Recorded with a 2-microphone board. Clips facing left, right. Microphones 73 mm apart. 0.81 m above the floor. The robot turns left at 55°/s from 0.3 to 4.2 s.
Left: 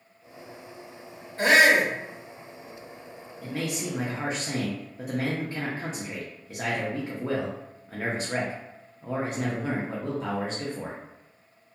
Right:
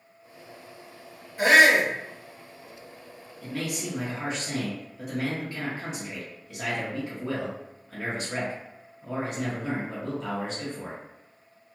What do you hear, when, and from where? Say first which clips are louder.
1.4 s a shout: right 1 dB; 15° right (ahead or behind), 1.3 m; by 1.9 s 10° left (ahead or behind), 1.3 m
3.4 s a man speaking: left 1 dB; 155° left, 0.6 m; by 11.0 s 115° left, 0.6 m